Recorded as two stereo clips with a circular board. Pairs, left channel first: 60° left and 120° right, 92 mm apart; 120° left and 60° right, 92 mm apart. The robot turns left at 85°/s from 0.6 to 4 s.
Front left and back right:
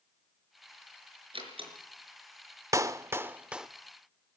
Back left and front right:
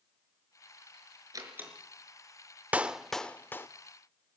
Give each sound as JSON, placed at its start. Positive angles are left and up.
{"t": 1.3, "sound": "a door slam", "azimuth_deg": -105, "distance_m": 5.0}
{"t": 2.7, "sound": "a clap", "azimuth_deg": -120, "distance_m": 0.7}